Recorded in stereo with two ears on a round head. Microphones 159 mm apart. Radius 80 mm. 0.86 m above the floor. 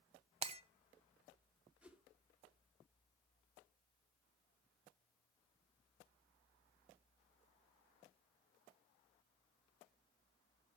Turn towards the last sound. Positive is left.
turn(degrees=-5)  # may be behind; listen again after turning